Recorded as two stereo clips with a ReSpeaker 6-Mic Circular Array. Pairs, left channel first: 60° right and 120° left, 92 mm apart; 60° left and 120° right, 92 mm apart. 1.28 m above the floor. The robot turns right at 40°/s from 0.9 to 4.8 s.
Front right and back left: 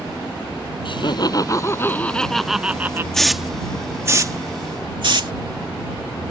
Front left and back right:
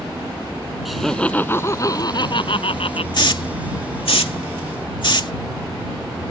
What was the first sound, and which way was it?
Laughter, 30° right.